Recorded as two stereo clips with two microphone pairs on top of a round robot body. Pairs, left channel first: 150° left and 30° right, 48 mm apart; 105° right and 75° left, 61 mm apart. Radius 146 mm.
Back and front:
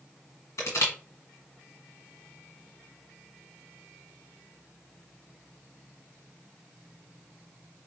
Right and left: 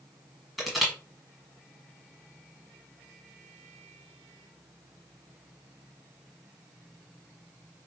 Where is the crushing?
165° left, 1.5 m.